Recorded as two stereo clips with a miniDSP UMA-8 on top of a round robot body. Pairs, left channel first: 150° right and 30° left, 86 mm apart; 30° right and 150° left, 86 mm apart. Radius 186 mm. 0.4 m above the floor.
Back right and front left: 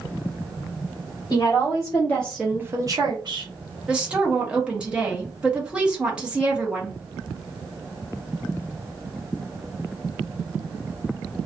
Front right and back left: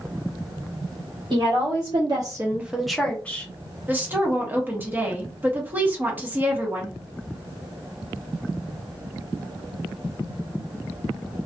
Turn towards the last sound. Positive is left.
turn(degrees=100)